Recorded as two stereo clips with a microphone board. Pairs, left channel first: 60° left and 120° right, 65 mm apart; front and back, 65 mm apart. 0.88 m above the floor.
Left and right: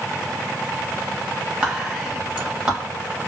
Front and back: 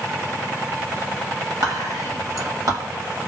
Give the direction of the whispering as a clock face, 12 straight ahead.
6 o'clock.